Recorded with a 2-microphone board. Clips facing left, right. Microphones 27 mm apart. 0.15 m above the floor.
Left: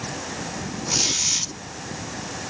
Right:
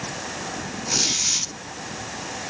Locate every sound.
0.9 s a squeak: 10° right (ahead or behind), 3 m